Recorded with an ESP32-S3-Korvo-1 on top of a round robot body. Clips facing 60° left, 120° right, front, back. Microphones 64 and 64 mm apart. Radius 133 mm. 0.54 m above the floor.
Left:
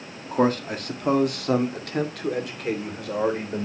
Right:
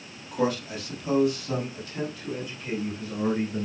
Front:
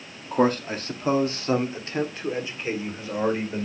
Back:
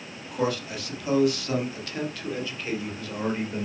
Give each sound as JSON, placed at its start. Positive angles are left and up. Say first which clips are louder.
{"t": 0.3, "sound": "a man speaking", "louder": "left 5 dB, front 6 dB", "azimuth_deg": 30, "distance_m": 1.7}